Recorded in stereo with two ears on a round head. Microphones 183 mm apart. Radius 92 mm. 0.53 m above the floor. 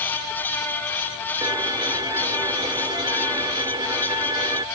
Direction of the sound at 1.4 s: 20° right (ahead or behind).